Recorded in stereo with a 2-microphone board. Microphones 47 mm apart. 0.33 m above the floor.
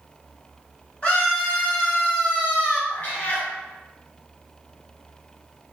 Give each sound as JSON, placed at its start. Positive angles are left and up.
{"t": 1.0, "sound": "a scream", "side_deg": 30, "distance_m": 1.9}
{"t": 2.9, "sound": "a cat meowing", "side_deg": 35, "distance_m": 0.7}